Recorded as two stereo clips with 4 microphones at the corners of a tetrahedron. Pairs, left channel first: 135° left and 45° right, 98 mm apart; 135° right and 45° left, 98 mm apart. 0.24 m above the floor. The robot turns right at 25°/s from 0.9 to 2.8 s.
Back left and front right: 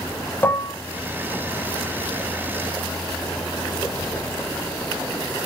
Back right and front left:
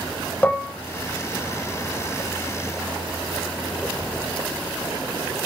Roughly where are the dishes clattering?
Behind.